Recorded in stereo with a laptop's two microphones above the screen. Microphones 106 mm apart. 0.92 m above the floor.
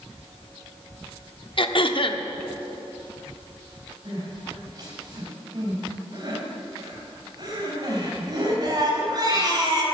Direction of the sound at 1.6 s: 50° left (ahead or behind).